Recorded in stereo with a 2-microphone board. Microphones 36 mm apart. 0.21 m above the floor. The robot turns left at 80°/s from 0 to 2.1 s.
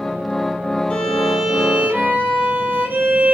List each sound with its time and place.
0.9 s a violin: 35° left, 1.2 m; by 3.3 s 65° right, 1.2 m